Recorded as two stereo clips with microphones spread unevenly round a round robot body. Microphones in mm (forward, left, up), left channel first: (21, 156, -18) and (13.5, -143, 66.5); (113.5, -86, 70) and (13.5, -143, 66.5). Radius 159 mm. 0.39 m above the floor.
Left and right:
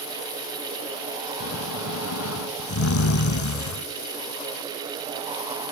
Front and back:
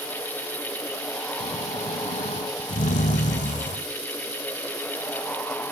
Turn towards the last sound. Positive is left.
turn(degrees=40)